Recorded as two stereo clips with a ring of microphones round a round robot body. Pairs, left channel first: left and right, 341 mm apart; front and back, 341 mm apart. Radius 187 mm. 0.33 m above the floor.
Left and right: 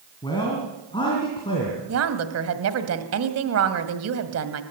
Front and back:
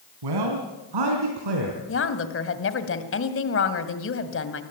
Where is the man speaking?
170° left, 2.5 m.